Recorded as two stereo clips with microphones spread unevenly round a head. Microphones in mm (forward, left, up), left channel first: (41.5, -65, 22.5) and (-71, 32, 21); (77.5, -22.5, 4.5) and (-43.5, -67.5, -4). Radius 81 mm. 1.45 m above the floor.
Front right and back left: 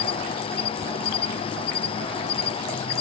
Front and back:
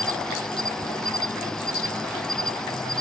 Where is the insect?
65° right.